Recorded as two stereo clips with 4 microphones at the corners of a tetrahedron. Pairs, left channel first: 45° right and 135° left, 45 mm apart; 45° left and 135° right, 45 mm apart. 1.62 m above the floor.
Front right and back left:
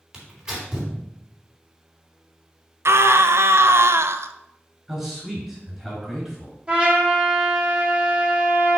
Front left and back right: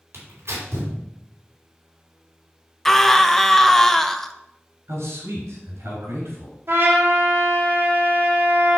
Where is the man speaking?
145° right, 3.5 m.